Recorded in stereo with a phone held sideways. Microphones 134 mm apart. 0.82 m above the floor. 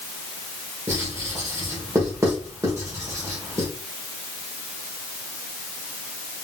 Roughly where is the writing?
Right.